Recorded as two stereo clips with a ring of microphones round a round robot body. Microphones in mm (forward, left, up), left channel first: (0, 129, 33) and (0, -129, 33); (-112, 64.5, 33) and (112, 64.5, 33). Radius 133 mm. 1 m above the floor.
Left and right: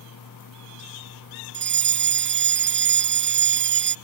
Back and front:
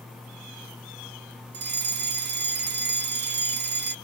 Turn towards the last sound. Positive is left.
turn(degrees=-45)